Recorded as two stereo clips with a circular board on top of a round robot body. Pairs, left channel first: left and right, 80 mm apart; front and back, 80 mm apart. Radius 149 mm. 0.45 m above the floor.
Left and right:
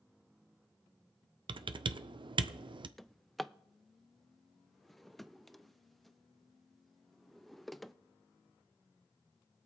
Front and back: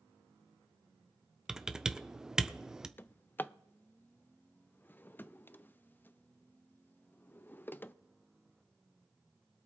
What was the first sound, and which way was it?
Typing on a keyboard, 100° right.